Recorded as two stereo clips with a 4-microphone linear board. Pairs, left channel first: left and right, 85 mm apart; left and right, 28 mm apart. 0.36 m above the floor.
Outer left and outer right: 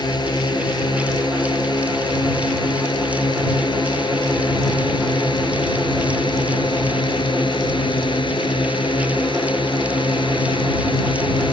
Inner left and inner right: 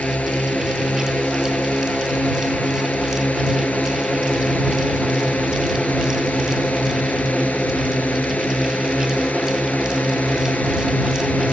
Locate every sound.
0.0 s a drone: 60° left (ahead or behind); by 11.6 s 75° left (ahead or behind)